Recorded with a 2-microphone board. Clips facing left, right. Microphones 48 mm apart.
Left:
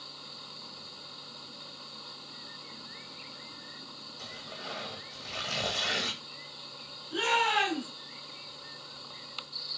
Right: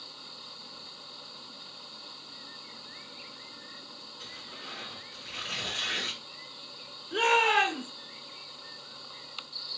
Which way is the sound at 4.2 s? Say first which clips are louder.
Left 2 dB; 70° left (ahead or behind).